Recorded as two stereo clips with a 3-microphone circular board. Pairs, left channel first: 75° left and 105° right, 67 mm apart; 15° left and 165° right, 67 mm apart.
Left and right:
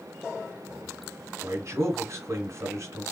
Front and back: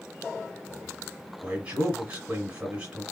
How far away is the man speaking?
About 1.5 m.